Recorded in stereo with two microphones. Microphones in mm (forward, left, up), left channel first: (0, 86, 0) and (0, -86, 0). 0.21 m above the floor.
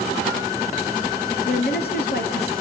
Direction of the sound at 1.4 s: 70° left (ahead or behind).